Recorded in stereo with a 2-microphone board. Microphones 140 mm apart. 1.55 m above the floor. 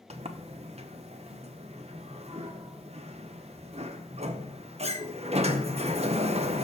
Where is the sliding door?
45° right (ahead or behind), 1.0 m.